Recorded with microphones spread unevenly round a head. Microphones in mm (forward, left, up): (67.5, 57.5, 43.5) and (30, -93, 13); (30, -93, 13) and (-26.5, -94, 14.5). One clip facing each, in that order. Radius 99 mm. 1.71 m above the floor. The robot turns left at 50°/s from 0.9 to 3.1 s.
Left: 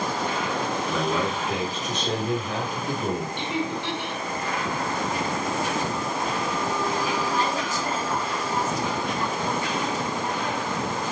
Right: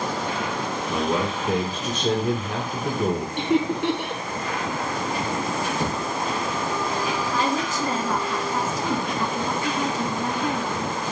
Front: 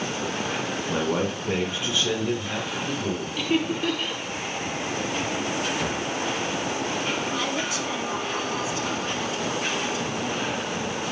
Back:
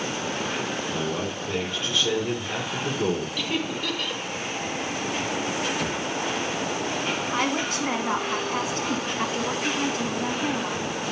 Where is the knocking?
85° right, 4 m.